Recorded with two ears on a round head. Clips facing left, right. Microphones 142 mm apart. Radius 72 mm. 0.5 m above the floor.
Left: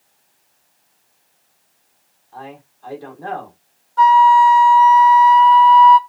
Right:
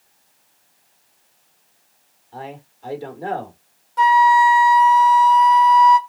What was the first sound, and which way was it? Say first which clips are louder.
A man speaking: right 1 dB; 20° right (ahead or behind).